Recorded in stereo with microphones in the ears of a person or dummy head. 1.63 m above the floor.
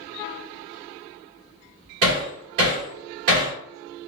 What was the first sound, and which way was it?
Hammering, 60° right (ahead or behind).